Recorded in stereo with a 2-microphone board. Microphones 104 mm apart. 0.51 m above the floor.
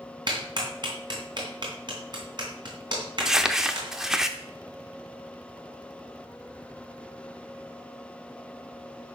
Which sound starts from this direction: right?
A clap, at 0.3 s.